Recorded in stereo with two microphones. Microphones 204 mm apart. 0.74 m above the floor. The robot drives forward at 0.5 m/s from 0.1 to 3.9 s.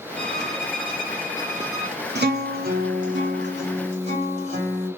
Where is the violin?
5° left (ahead or behind), 0.7 m; by 2.0 s centre (ahead or behind), 1.5 m.